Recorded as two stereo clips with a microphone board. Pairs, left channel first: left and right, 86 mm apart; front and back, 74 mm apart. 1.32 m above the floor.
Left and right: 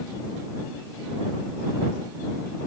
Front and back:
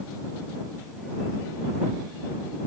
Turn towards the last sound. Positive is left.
No sound to turn to.